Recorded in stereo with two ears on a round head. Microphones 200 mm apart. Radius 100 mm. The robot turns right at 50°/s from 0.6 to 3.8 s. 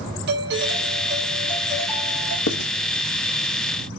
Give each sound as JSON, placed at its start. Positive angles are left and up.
{"t": 0.3, "sound": "a doorbell", "azimuth_deg": -50, "distance_m": 6.5}
{"t": 2.5, "sound": "writing", "side_deg": 55, "distance_m": 1.0}